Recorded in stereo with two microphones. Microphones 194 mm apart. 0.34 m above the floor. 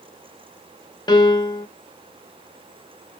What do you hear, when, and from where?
1.1 s a piano: 20° left (ahead or behind), 0.6 m